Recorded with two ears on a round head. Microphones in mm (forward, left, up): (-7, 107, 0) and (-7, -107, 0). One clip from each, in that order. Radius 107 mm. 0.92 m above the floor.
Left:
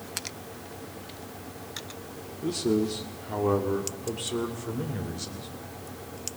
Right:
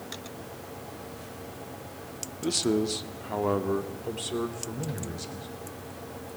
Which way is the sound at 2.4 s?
60° right (ahead or behind).